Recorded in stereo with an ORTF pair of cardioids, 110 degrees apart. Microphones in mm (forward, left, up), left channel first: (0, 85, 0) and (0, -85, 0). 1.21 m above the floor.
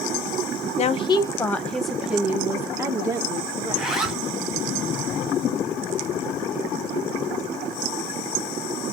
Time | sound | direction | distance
0.8 | a woman speaking | 40° left | 0.6 m
3.7 | a zipper | 5° right | 1.1 m